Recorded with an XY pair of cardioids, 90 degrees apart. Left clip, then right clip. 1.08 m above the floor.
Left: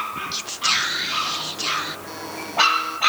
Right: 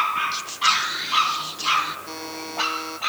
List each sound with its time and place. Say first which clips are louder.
0.3 s whispering: right 1 dB; 20° left
2.1 s a buzzer: left 1 dB; 30° right